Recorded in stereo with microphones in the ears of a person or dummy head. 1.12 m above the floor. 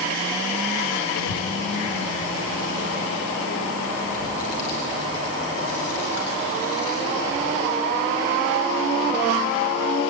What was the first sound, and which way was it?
A child speaking, 85° left.